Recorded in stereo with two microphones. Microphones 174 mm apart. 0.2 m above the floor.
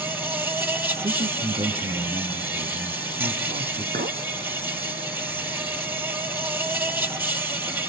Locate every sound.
0.0 s an insect: 15° right (ahead or behind), 2 m
1.0 s a man speaking: 45° right (ahead or behind), 2.5 m
3.9 s a clink: 65° right (ahead or behind), 1.8 m